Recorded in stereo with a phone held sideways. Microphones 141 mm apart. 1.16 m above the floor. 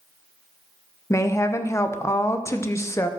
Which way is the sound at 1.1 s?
20° left (ahead or behind).